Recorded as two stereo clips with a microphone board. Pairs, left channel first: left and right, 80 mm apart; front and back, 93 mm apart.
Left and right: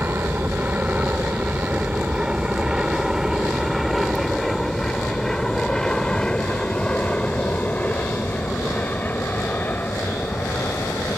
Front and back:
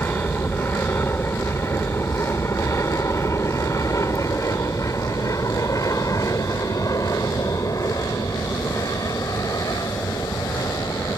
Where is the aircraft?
50° right; by 11.2 s 35° left.